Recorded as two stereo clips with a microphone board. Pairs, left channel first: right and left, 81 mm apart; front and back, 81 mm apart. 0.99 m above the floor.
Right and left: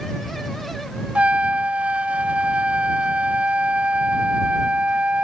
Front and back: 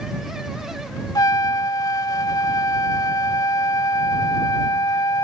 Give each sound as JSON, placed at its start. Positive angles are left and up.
{"t": 1.1, "sound": "a trumpet", "azimuth_deg": 20}